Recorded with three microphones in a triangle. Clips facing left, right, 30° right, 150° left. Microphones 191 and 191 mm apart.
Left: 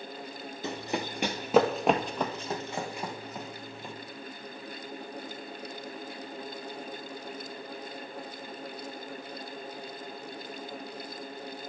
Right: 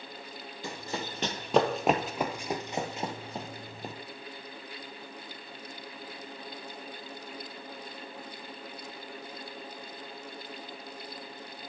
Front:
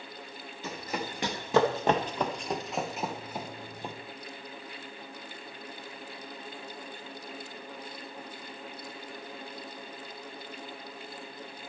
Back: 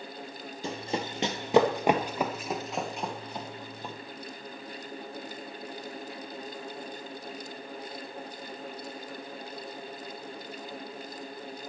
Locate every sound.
0.6 s running footsteps: 135° left, 1.7 m; by 4.0 s 95° right, 1.8 m